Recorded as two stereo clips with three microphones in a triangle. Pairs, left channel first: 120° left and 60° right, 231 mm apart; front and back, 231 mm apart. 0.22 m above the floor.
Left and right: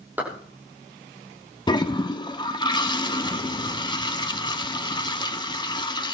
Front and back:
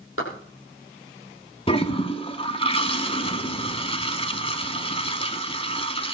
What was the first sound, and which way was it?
A clap, 20° left.